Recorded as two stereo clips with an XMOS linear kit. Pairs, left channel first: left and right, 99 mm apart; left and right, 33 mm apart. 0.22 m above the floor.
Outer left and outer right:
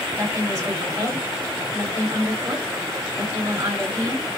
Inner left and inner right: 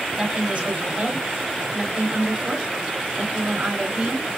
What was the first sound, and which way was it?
A woman speaking, 30° right (ahead or behind).